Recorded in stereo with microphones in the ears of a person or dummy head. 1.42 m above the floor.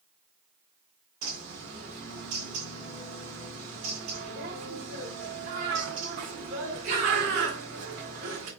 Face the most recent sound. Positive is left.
turn(degrees=-40)  # may be behind; listen again after turning